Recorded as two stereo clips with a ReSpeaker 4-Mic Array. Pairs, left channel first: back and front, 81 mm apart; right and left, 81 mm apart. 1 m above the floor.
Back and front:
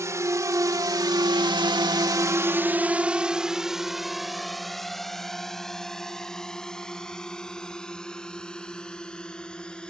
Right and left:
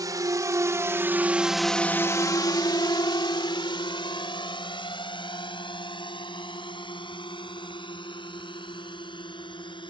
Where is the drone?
50° left; by 9.9 s 100° right.